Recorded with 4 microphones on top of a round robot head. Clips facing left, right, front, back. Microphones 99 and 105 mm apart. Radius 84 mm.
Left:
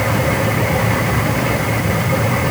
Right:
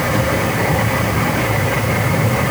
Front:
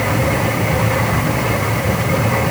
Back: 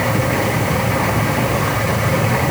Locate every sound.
Only background noise.